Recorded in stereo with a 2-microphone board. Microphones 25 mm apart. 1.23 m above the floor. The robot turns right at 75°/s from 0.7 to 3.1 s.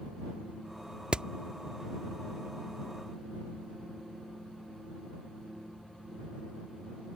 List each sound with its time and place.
1.1 s hammering: 40° right (ahead or behind); by 1.3 s 35° right (ahead or behind)